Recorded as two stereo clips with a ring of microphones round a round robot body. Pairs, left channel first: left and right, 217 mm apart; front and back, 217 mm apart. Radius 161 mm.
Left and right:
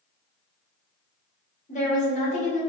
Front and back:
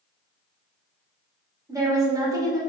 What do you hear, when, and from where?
1.7 s a woman speaking: 115° left, 1.4 m